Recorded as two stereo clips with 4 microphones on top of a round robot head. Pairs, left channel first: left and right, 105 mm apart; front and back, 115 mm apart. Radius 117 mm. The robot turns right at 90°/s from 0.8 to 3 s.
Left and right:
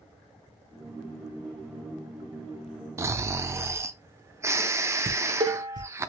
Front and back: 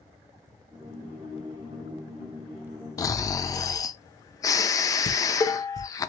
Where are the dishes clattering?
55° right, 0.9 m.